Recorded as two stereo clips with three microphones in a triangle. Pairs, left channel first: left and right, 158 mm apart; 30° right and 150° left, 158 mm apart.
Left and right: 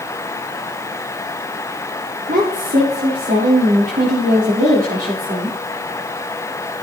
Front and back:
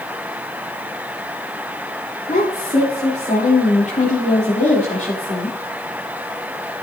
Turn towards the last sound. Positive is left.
turn(degrees=-75)